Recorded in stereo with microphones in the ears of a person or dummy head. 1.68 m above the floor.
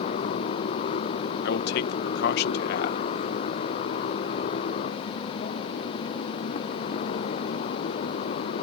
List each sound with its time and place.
0.0 s a motorcycle: 45° left (ahead or behind)
1.4 s a man speaking: 60° left (ahead or behind)